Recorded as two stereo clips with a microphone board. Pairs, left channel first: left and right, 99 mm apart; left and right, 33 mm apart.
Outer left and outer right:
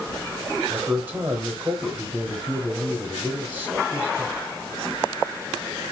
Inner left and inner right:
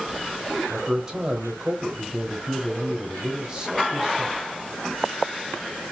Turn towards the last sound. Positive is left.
turn(degrees=-20)  # may be behind; listen again after turning